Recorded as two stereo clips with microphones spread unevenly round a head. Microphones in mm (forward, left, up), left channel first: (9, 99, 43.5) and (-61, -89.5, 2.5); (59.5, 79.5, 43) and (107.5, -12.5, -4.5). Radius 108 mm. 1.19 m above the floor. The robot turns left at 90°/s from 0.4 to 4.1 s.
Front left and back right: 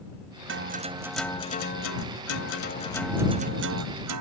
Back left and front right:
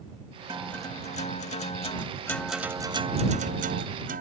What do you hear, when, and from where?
0.5 s a guitar: 145° right; by 4.2 s 110° right